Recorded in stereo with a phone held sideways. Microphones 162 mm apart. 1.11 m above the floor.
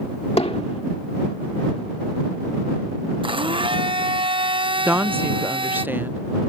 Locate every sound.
0.4 s hammering: 40° left (ahead or behind)
3.2 s a blender: 30° right (ahead or behind)
4.8 s a woman speaking: 10° right (ahead or behind)